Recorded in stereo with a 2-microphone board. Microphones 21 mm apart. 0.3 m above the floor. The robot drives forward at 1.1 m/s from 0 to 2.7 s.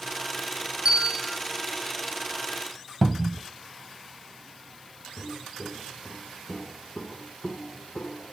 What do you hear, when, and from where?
0.8 s a bell: 40° right (ahead or behind), 1.2 m; by 1.4 s 30° right (ahead or behind), 1.6 m
3.0 s a cupboard door: 5° left (ahead or behind), 0.6 m
5.2 s footsteps: 20° left (ahead or behind), 1.6 m; by 8.3 s 75° left (ahead or behind), 1.5 m